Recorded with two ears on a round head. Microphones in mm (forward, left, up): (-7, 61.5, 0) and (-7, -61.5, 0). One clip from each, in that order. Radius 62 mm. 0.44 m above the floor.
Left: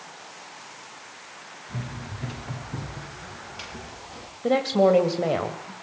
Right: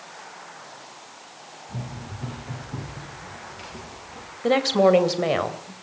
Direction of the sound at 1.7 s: 25° left (ahead or behind).